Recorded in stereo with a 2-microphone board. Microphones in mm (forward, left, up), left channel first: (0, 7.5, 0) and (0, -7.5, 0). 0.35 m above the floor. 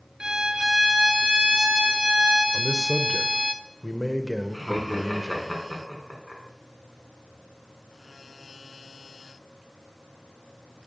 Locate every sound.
0.2 s a violin: 70° right (ahead or behind), 0.8 m
2.5 s a man speaking: 15° right (ahead or behind), 0.8 m
4.5 s laughter: 10° right (ahead or behind), 4 m